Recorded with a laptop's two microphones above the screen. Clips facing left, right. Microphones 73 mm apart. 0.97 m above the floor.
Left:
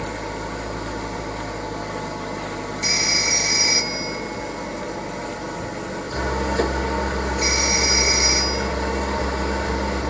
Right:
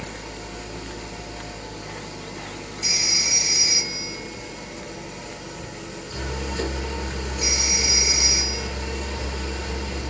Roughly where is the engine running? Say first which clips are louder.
Left 7 dB; left.